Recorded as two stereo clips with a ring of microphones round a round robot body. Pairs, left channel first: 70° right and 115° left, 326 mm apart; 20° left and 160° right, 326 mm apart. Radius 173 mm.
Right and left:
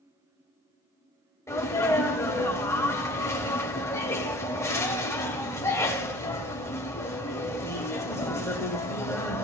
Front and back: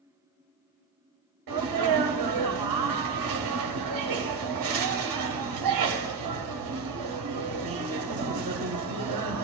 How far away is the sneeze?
About 1.6 m.